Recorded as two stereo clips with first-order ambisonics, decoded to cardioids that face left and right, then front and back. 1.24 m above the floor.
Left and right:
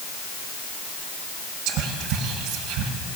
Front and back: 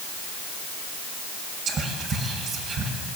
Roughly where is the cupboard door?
No cupboard door in this recording.